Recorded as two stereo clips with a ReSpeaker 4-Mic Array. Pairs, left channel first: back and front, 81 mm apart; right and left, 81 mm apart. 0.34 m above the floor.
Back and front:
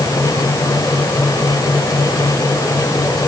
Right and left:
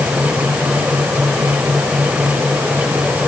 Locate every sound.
Only background noise.